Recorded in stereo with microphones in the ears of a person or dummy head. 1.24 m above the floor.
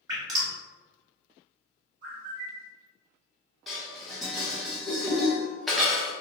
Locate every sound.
0.1 s dripping: 20° right (ahead or behind), 1.1 m
2.0 s a bird: 45° right (ahead or behind), 1.3 m
3.7 s dishes clattering: centre (ahead or behind), 0.6 m